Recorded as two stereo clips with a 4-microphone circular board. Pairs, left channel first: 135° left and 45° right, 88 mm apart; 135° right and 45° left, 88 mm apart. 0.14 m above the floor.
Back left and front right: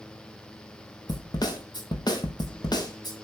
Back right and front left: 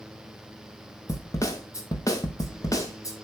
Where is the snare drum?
175° left, 1.9 m.